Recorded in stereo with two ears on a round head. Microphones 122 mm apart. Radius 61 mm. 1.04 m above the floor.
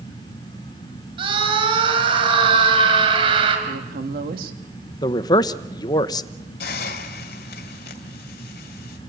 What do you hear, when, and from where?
1.2 s a scream: 40° right (ahead or behind), 6 m
3.7 s a woman speaking: 75° right (ahead or behind), 2 m
5.0 s a man speaking: 30° left (ahead or behind), 0.8 m
6.6 s a hiss: 80° left, 2 m